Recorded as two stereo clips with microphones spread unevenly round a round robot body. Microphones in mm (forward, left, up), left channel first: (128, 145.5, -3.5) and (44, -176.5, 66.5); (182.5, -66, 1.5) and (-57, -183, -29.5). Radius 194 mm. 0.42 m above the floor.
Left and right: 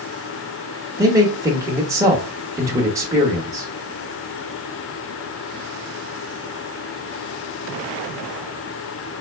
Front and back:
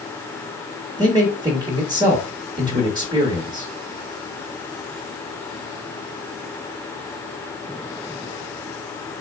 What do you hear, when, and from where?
1.0 s a man speaking: 160° left, 0.8 m